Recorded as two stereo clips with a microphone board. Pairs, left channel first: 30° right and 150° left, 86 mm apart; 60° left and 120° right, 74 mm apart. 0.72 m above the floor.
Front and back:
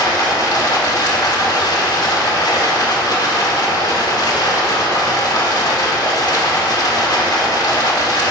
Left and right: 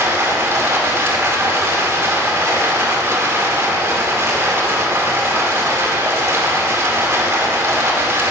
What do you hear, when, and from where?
0.0 s running water: 70° right, 1.6 m